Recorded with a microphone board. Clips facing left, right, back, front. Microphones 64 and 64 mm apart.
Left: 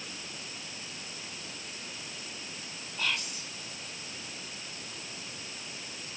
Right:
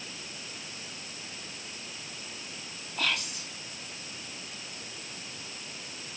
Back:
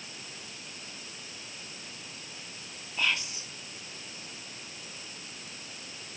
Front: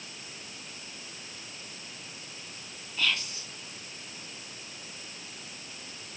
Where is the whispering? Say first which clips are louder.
Right 2 dB, even; 110° right, 2 m.